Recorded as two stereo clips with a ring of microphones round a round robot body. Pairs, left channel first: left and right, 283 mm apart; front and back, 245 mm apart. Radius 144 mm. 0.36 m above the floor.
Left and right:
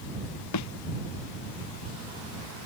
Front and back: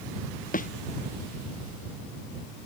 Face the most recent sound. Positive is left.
turn(degrees=55)